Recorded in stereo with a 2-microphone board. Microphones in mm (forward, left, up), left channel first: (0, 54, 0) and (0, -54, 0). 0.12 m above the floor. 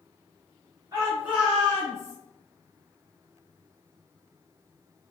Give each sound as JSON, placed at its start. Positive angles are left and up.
{"t": 0.9, "sound": "a shout", "side_deg": -35, "distance_m": 1.4}